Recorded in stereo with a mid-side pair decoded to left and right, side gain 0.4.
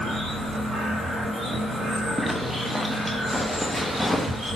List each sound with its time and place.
2.2 s a zipper: 10° left, 0.6 m